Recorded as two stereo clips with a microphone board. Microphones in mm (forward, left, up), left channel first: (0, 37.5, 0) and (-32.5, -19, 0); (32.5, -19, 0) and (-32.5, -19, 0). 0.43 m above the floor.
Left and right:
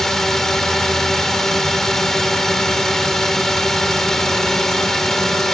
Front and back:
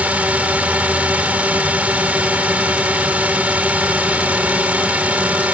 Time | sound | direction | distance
0.0 | a drone | 140° left | ?